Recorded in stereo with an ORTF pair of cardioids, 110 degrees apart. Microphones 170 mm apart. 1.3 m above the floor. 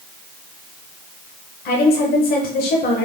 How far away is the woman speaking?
About 0.9 m.